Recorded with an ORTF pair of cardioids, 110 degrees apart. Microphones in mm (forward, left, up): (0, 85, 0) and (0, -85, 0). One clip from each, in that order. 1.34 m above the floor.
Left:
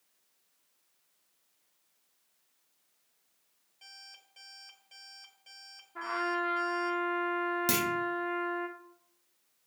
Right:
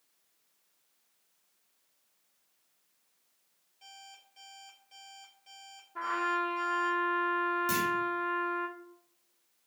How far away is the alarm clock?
About 4.5 m.